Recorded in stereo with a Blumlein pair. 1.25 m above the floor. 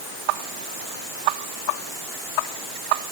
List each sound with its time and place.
Only background noise.